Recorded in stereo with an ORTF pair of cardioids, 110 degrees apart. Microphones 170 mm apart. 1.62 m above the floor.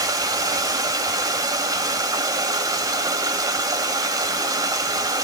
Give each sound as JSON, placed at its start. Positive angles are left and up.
{"t": 0.0, "sound": "running water", "azimuth_deg": -20, "distance_m": 6.5}